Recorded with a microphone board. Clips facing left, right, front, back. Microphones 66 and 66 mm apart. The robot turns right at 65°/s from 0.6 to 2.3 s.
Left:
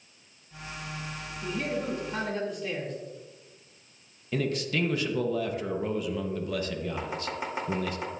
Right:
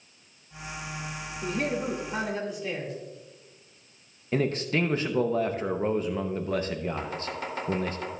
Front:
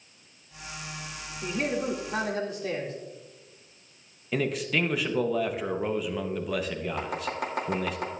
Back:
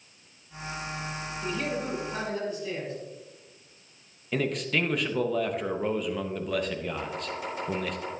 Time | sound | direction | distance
1.4 | a man speaking | 65° right | 2 m
4.3 | a man speaking | 85° right | 0.7 m
7.0 | chopping | 20° left | 2 m